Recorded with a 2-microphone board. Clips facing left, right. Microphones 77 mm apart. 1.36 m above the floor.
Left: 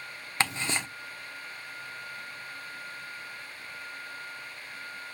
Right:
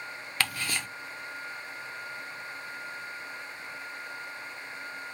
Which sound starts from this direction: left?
Ticking, at 0.4 s.